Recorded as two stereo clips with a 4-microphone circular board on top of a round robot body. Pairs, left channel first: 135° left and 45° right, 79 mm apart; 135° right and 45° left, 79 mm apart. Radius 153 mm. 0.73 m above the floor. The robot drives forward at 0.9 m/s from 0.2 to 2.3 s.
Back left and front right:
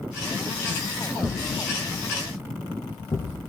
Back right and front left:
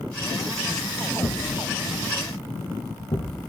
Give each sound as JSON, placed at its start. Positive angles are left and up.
{"t": 1.2, "sound": "a thud", "azimuth_deg": -175, "distance_m": 4.5}